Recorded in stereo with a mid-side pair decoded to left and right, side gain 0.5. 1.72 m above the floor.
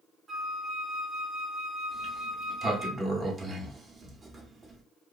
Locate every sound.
0.3 s a flute: 20° right, 0.9 m
1.9 s a sliding door: 25° right, 0.8 m